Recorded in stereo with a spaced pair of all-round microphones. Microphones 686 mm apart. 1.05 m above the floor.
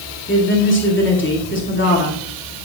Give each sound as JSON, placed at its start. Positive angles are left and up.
{"t": 0.3, "sound": "a woman speaking", "side_deg": 15, "distance_m": 2.0}